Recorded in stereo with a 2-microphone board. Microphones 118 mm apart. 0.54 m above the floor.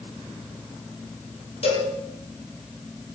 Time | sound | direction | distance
1.6 | a cowbell | 60° left (ahead or behind) | 4 m